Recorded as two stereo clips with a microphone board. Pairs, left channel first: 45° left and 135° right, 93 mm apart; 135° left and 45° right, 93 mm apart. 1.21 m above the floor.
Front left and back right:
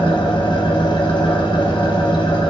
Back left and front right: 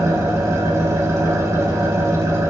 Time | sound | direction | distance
0.0 | an engine running | 15° left | 1.3 m